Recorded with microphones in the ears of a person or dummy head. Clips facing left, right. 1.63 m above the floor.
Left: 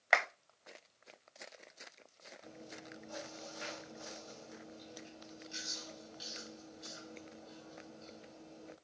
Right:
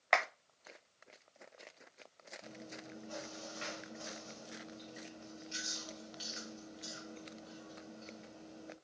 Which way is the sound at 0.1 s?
5° left (ahead or behind).